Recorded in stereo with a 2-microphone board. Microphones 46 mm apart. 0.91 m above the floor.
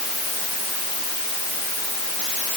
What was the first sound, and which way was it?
Only background noise.